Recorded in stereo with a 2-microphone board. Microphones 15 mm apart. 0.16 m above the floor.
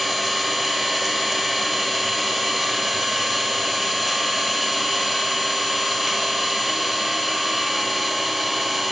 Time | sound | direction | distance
0.0 | an engine running | 15° right (ahead or behind) | 1.8 m